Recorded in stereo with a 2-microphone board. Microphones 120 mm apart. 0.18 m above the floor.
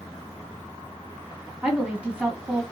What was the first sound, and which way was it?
A woman speaking, 10° right (ahead or behind).